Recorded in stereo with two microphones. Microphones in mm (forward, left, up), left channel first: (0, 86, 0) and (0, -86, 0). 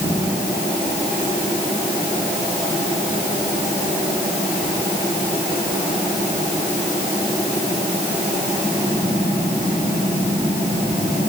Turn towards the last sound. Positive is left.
No sound to turn to.